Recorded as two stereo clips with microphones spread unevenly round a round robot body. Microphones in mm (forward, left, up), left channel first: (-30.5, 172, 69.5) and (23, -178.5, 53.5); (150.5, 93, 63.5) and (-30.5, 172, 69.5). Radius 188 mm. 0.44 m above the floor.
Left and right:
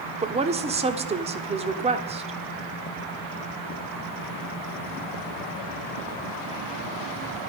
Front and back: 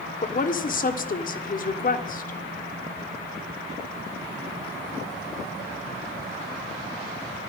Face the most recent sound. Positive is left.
turn(degrees=-20)